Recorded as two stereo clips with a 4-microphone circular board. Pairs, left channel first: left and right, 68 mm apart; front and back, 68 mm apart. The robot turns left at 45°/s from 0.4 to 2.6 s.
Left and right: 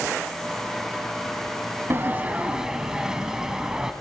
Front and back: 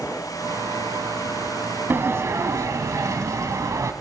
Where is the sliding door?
135° right, 1.0 m; by 3.9 s 170° right, 1.0 m.